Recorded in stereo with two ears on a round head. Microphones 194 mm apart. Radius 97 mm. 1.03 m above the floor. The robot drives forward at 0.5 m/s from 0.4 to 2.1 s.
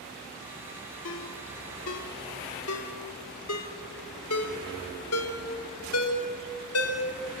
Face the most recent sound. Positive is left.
turn(degrees=75)  # may be behind; listen again after turning